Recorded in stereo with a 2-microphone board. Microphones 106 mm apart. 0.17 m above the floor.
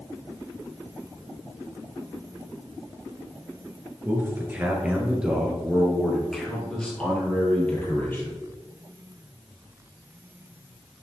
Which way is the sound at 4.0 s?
20° right (ahead or behind).